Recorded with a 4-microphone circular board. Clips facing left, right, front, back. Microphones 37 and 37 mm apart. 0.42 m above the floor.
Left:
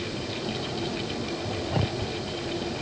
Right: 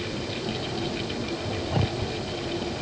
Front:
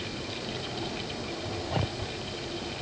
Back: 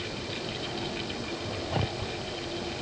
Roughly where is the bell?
No bell in this recording.